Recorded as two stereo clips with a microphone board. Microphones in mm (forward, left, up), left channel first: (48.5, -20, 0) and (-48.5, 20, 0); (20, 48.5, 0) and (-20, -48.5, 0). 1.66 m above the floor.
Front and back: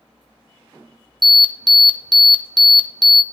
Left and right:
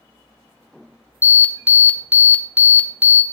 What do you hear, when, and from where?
1.2 s an alarm: straight behind, 0.6 m